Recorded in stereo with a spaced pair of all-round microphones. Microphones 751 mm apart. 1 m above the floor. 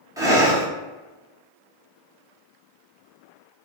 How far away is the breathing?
About 0.7 m.